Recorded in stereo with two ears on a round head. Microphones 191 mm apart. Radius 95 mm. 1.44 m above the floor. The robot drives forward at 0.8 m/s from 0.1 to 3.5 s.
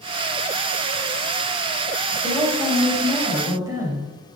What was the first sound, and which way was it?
A woman speaking, 20° right (ahead or behind).